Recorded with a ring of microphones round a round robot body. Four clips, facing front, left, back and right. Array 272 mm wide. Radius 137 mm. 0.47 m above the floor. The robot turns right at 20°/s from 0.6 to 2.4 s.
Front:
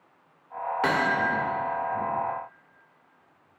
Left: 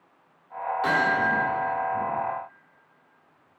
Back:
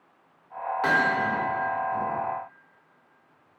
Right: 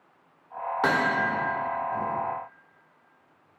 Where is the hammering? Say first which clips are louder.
Even, back 1 dB; 65° right, 1.5 m; by 1.2 s 55° right, 1.5 m.